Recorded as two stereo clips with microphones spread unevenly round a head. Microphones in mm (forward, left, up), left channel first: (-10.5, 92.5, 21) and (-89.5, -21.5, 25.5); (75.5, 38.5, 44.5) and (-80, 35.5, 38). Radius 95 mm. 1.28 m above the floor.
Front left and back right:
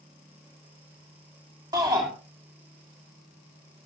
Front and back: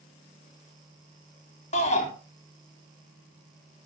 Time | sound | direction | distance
1.7 | a shout | 55° right | 3 m